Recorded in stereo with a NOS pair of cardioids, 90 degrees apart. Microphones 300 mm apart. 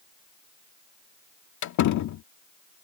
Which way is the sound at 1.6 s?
70° left.